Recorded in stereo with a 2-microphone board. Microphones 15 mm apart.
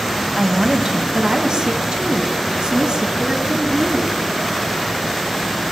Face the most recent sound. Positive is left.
turn(degrees=-70)  # may be behind; listen again after turning